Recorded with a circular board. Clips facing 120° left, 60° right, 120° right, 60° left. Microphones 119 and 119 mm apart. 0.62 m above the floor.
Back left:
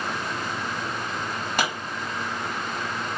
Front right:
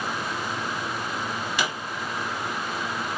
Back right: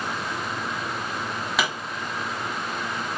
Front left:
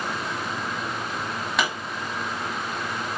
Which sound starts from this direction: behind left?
A pop, at 1.6 s.